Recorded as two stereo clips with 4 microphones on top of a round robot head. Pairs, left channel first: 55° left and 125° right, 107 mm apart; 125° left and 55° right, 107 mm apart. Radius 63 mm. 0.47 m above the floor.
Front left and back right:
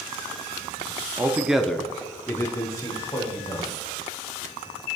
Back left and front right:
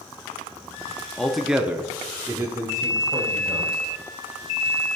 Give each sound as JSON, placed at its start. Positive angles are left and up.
{"t": 1.2, "sound": "a man speaking", "azimuth_deg": -160, "distance_m": 0.7}